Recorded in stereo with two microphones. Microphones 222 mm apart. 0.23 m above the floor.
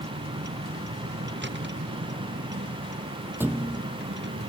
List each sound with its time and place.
0.0 s a vehicle: 55° right (ahead or behind)
3.4 s a thud: 10° right (ahead or behind)